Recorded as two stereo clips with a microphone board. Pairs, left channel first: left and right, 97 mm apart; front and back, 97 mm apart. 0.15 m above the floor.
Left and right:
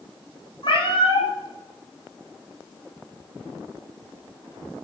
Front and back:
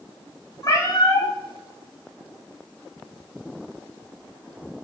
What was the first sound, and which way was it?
A cat meowing, 55° left.